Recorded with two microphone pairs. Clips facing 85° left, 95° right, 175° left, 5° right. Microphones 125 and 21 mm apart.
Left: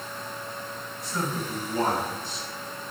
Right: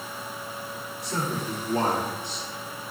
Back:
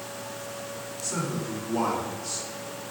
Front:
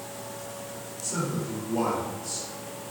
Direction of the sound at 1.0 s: 120° right.